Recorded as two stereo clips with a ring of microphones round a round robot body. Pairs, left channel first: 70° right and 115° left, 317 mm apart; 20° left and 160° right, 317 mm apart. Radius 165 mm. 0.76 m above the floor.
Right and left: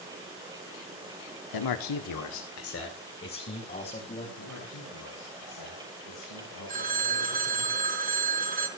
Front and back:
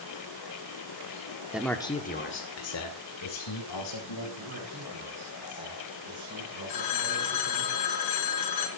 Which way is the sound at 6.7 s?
45° left.